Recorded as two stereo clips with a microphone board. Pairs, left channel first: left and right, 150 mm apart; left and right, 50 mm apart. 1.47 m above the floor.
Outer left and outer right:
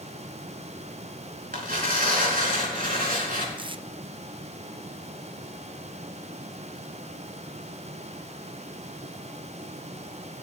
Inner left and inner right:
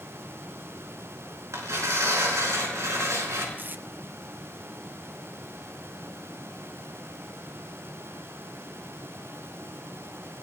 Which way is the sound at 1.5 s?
75° right (ahead or behind).